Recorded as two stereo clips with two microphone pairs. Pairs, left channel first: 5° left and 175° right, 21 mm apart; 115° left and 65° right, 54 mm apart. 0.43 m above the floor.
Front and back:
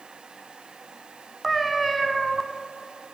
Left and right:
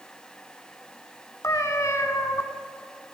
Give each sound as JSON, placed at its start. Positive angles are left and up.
{"t": 1.4, "sound": "a cat meowing", "azimuth_deg": 100, "distance_m": 0.8}